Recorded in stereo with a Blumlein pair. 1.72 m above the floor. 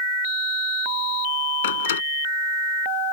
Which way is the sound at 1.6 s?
60° left.